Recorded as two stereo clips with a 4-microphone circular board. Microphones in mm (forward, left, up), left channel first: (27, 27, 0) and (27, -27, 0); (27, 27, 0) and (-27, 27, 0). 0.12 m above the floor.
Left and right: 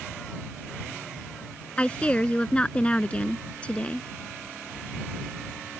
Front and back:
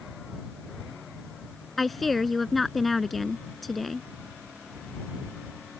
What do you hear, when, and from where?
1.8 s a woman speaking: 85° left